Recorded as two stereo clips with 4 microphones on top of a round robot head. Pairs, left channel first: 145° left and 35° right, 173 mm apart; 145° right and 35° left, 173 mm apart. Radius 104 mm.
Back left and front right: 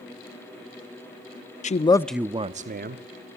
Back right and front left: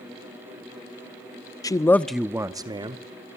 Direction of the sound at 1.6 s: 155° left.